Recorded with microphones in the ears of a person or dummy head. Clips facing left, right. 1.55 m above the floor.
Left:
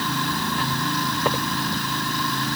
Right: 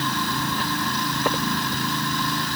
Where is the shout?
No shout in this recording.